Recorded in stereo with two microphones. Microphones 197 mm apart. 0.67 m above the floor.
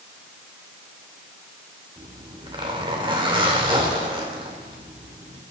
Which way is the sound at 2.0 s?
25° right (ahead or behind).